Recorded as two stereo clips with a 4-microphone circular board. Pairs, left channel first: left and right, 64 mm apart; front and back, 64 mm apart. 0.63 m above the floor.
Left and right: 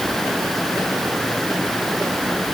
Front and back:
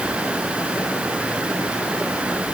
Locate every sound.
Only background noise.